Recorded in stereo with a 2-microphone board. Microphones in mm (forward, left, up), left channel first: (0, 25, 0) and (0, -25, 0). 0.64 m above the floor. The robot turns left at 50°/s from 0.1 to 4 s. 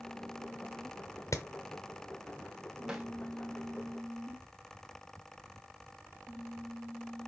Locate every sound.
1.3 s hammering: 85° left, 1.1 m; by 1.5 s 80° left, 1.1 m
2.9 s a snare drum: 15° right (ahead or behind), 3.5 m; by 3.0 s 10° right (ahead or behind), 3.5 m